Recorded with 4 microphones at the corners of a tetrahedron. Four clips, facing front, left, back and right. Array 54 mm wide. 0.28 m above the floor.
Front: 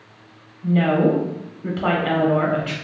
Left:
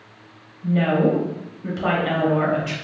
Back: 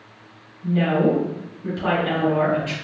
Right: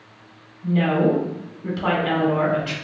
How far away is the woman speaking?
About 1.0 m.